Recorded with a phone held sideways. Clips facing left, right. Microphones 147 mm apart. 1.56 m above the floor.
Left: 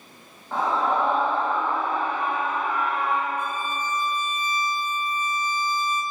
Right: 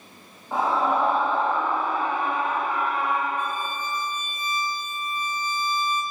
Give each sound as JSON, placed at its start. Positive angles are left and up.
{"t": 0.5, "sound": "a scream", "side_deg": -15, "distance_m": 2.0}
{"t": 3.4, "sound": "a violin", "side_deg": 30, "distance_m": 1.8}